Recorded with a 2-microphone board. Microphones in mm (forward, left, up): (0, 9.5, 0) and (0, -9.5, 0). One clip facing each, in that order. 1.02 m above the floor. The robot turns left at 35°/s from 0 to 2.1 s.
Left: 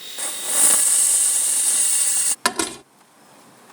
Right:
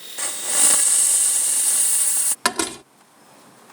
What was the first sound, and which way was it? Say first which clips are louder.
A hiss: right 1 dB; 145° right.